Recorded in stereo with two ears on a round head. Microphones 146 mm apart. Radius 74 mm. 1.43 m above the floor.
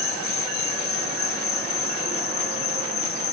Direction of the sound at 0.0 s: 65° left (ahead or behind).